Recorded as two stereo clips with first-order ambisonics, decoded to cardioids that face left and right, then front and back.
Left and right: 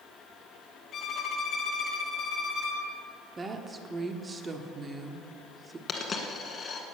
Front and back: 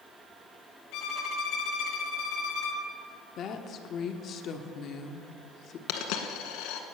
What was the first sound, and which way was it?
A violin, 30° left.